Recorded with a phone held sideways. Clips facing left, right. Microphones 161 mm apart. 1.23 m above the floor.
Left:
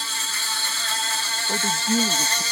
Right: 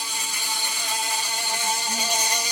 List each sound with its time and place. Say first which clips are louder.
0.0 s an insect: right 1 dB; 15° right (ahead or behind)
1.5 s a man speaking: left 7 dB; 60° left (ahead or behind)